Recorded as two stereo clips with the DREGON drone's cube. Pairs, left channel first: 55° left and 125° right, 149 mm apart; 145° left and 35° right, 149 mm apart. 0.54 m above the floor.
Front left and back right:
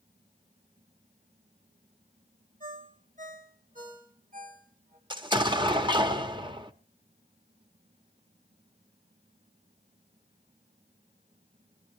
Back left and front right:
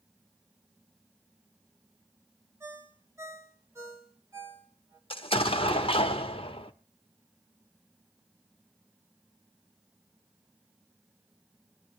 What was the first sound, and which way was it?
A ringtone, 105° right.